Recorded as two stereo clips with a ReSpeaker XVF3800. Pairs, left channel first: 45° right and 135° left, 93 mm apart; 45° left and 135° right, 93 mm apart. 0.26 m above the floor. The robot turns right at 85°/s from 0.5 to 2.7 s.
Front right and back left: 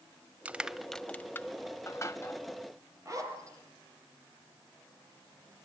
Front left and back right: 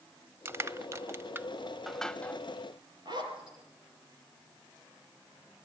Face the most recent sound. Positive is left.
turn(degrees=-170)